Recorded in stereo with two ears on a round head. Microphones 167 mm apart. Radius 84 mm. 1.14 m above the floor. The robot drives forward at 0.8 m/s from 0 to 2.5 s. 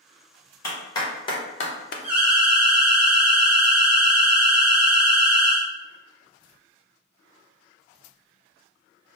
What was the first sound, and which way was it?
A clap, 15° left (ahead or behind).